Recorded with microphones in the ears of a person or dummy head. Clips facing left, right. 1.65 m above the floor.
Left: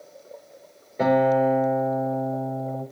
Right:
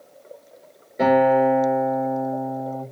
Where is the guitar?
5° right (ahead or behind), 5.5 m.